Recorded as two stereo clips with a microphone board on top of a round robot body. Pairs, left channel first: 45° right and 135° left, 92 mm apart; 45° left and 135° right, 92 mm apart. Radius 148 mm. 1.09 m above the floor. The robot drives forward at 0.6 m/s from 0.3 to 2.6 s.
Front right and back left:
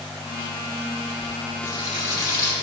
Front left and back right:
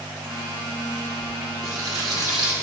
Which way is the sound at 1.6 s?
85° right.